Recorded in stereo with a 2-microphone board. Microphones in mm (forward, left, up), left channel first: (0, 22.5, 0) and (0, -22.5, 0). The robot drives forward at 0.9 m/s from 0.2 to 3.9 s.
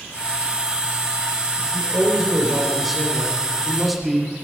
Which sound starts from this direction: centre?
A man speaking, at 1.6 s.